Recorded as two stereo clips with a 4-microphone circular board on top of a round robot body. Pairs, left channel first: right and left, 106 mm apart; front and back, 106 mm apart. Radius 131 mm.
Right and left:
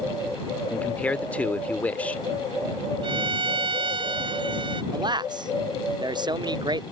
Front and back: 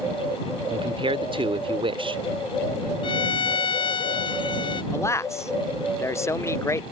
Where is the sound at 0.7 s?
165° right.